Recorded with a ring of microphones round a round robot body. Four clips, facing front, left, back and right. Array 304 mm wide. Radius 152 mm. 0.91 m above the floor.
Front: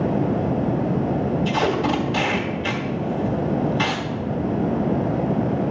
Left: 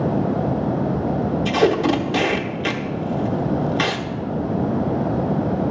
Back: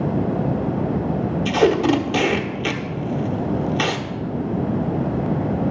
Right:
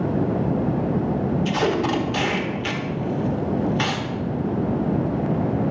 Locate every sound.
1.4 s tape being pulled: 150° left, 1.0 m